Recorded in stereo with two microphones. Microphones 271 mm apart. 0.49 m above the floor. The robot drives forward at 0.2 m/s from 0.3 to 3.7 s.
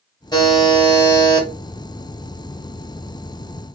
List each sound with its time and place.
0.3 s a buzzer: 15° left (ahead or behind), 1.4 m